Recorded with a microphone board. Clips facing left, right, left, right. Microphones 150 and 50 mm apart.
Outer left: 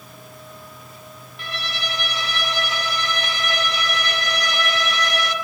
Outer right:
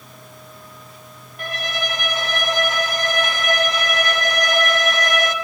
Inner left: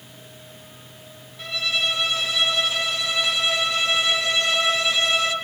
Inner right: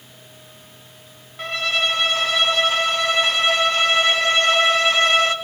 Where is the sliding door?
I don't hear a sliding door.